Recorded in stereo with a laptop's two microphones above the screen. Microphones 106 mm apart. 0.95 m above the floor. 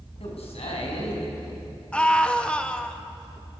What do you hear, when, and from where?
0.2 s a man speaking: 70° left (ahead or behind), 7.5 m
1.9 s a scream: 10° left (ahead or behind), 1.2 m